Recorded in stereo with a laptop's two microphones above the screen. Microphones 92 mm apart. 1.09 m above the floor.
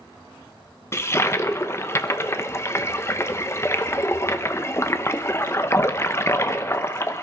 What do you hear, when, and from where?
0.9 s a toilet flushing: 30° left (ahead or behind), 0.7 m